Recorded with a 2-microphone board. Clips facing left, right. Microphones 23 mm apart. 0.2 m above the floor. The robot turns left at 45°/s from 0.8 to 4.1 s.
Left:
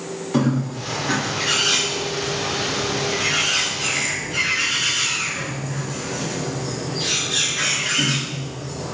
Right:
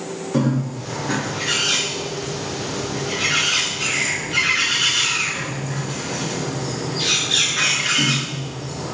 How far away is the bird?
About 1.1 m.